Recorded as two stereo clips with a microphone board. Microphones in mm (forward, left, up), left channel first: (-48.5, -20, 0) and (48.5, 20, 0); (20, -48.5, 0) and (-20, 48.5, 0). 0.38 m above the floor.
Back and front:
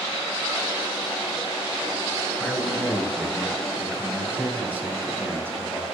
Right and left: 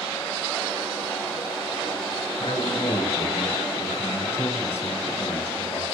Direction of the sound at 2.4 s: 70° right.